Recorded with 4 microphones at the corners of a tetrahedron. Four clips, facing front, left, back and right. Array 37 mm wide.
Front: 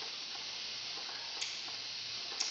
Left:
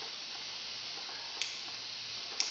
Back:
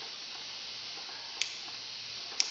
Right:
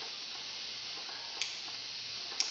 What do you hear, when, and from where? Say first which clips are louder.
1.4 s scissors: even, back 3 dB; straight behind, 0.8 m